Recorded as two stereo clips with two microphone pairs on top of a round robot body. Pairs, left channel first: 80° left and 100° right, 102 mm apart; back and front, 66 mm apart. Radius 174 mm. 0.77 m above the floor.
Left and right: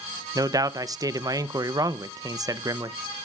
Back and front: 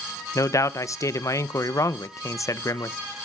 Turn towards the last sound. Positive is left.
turn(degrees=-150)